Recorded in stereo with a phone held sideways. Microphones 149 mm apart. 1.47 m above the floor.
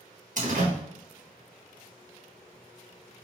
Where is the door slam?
60° right (ahead or behind), 1.2 m.